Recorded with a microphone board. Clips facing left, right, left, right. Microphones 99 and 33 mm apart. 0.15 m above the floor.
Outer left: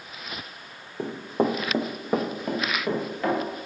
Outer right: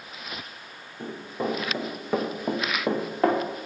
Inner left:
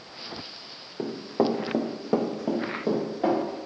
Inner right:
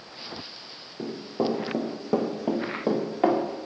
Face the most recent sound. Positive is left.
turn(degrees=-40)  # may be behind; listen again after turning